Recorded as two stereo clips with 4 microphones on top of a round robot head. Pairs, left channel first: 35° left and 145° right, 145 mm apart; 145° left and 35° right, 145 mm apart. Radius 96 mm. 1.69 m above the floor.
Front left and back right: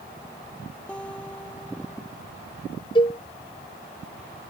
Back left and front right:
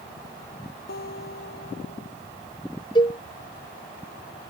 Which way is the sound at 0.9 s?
115° left.